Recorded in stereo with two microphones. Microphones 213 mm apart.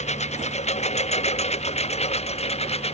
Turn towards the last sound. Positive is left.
turn(degrees=30)  # may be behind; listen again after turning